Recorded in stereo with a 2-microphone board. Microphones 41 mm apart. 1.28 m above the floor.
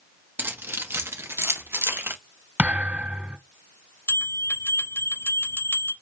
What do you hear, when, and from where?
0.4 s keys jangling: 55° right (ahead or behind), 1.2 m; by 2.2 s 60° right (ahead or behind), 1.2 m
2.6 s a thud: 35° right (ahead or behind), 1.4 m
4.1 s a bell: 85° left, 2.5 m